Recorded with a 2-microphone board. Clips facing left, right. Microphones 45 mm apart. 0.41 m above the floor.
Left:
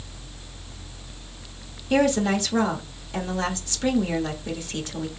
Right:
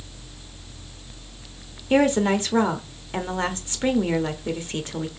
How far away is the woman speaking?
About 0.9 m.